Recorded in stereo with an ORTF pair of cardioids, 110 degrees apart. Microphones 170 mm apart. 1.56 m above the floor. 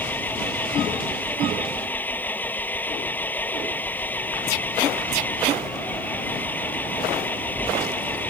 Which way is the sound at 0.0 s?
10° left.